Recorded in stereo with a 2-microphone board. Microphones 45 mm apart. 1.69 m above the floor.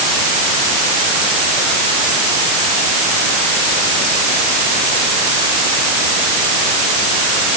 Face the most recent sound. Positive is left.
No sound to turn to.